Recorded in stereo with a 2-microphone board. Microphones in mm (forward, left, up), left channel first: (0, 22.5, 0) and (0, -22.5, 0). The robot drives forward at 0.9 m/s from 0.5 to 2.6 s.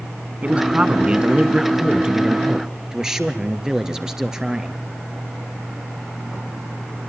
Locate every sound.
0.4 s a man speaking: 25° right (ahead or behind), 1.2 m; by 4.8 s 15° right (ahead or behind), 2.5 m